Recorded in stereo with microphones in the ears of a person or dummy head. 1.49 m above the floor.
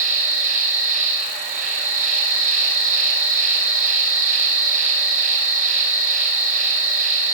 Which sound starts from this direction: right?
An insect, at 0.0 s.